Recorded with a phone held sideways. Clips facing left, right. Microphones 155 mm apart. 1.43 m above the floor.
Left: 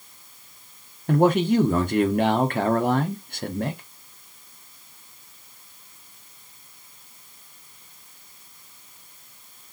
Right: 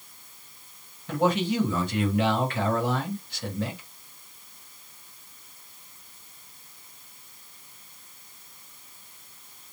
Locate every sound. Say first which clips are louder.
1.1 s a man speaking: left 6 dB; 50° left (ahead or behind), 0.8 m